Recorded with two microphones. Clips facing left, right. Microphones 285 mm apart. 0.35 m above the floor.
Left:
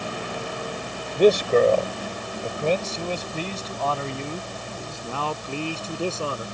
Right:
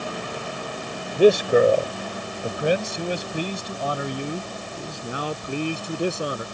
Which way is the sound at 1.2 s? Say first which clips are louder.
Right 1 dB; 10° right (ahead or behind).